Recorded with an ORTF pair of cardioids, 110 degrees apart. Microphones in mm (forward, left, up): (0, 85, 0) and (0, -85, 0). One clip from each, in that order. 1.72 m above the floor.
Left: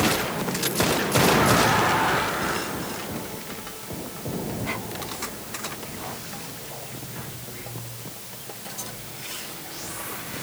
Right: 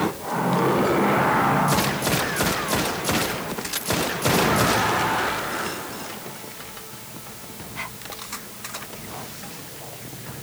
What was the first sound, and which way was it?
Only background noise.